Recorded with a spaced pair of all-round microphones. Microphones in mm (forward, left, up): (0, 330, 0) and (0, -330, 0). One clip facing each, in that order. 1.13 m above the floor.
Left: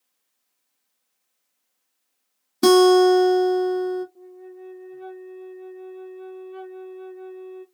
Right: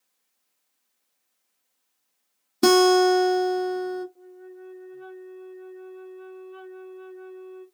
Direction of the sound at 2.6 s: Centre (ahead or behind).